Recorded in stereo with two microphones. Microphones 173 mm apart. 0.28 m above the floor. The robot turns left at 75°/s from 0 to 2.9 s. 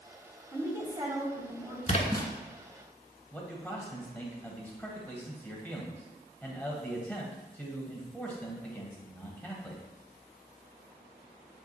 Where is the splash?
45° left, 0.6 m; by 2.3 s 15° left, 0.6 m.